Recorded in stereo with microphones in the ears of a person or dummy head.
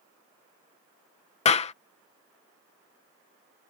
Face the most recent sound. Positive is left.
turn(degrees=30)  # may be behind; listen again after turning